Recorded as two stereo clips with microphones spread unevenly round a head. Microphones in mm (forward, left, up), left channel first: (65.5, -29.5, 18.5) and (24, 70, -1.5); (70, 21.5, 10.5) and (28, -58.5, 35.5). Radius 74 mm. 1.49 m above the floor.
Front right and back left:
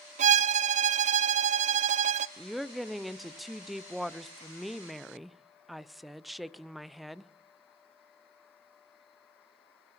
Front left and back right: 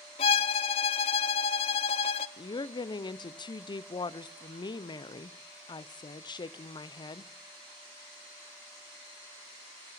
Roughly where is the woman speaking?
Ahead left.